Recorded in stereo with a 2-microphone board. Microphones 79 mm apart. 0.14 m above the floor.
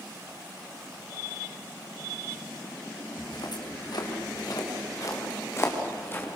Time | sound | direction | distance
3.2 | footsteps | 70° left (ahead or behind) | 5 m